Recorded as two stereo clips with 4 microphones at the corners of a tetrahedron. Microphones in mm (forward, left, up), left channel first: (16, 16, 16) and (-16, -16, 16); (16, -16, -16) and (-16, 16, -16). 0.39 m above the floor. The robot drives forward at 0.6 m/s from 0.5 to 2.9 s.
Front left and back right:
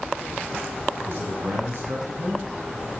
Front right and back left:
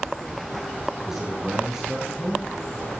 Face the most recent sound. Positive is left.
turn(degrees=-155)